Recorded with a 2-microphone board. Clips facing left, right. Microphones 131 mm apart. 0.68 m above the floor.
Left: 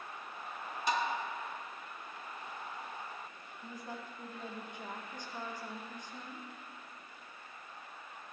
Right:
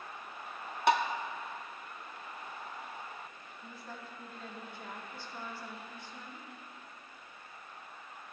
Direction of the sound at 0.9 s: 65° right (ahead or behind).